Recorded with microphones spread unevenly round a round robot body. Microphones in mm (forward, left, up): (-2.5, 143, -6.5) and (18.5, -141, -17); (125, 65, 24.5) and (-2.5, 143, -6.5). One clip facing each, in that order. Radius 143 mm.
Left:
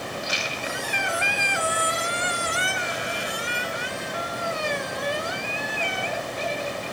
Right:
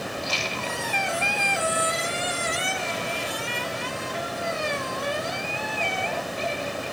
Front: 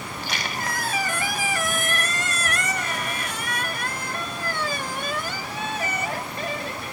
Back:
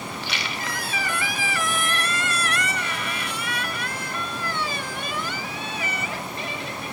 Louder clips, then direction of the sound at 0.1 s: Right 1 dB, front 1 dB; 20° left.